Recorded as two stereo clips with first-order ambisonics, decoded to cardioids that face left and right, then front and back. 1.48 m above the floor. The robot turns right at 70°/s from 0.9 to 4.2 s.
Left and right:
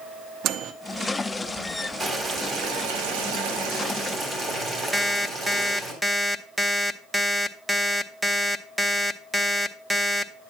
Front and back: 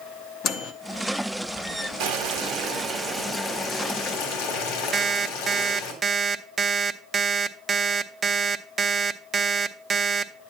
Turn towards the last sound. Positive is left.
turn(degrees=-170)